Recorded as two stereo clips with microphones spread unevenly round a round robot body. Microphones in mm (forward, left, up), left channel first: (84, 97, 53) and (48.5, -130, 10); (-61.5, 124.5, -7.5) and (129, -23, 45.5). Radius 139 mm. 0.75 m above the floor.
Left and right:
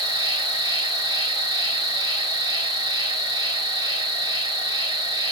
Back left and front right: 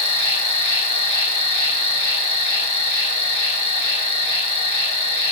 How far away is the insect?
About 2 m.